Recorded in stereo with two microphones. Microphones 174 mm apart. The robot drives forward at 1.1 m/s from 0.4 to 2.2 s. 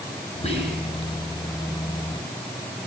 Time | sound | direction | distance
0.4 | whispering | 35° left (ahead or behind) | 7.5 m